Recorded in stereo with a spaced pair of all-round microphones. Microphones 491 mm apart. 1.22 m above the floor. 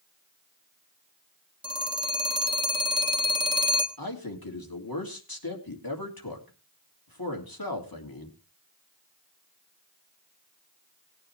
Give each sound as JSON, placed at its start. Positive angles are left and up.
{"t": 1.6, "sound": "a phone ringing", "side_deg": -10, "distance_m": 1.3}
{"t": 4.0, "sound": "a man speaking", "side_deg": 50, "distance_m": 2.5}